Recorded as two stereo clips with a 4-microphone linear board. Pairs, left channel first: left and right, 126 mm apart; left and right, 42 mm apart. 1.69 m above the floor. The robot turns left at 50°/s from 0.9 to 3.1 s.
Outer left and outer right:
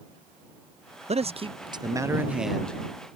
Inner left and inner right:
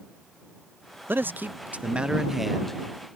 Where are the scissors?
I don't hear scissors.